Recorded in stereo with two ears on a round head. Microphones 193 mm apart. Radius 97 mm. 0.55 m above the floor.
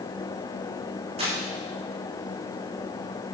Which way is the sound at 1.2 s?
30° right (ahead or behind).